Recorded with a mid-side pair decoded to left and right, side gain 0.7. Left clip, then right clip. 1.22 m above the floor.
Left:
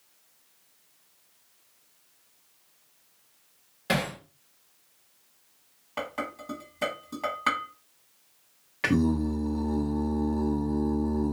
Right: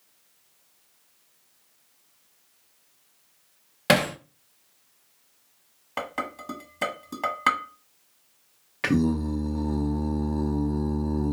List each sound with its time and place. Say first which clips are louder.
3.9 s hammering: right 7 dB; 50° right, 0.6 m
6.0 s dishes clattering: right 2 dB; 25° right, 1.3 m
8.8 s singing: right 1 dB; 5° right, 0.6 m